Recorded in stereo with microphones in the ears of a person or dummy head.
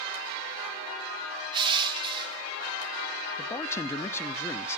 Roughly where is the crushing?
Right.